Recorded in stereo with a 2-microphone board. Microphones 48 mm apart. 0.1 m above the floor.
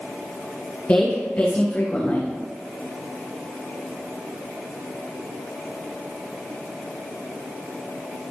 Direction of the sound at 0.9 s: 35° left (ahead or behind).